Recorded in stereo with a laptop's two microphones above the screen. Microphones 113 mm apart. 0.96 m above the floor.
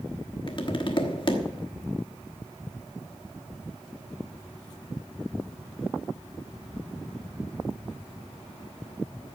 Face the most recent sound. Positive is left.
turn(degrees=45)  # may be behind; listen again after turning